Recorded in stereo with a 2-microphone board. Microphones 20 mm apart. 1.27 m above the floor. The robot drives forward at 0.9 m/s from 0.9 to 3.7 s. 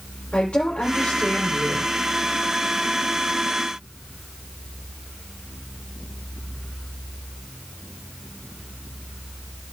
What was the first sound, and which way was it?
A woman speaking, 80° left.